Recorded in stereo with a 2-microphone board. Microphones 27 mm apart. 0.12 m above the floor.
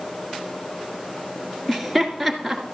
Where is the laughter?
5° left (ahead or behind), 1.5 m.